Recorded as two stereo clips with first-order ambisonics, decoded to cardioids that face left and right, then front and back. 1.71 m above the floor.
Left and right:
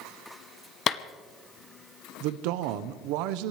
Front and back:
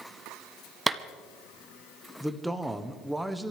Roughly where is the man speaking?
Right.